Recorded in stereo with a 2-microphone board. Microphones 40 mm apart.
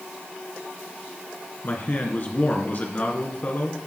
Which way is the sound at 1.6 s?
45° left (ahead or behind).